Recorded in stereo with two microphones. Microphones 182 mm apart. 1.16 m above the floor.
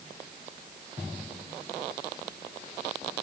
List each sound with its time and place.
Only background noise.